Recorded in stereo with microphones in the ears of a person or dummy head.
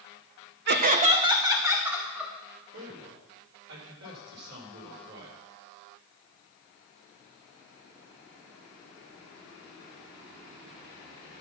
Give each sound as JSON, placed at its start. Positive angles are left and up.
{"t": 0.7, "sound": "laughter", "side_deg": -55, "distance_m": 0.9}
{"t": 2.7, "sound": "a man speaking", "side_deg": -90, "distance_m": 5.0}